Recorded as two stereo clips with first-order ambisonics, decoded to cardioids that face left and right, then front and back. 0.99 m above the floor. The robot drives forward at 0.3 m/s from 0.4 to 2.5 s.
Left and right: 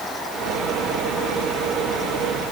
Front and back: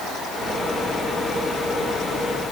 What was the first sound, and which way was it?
Only background noise.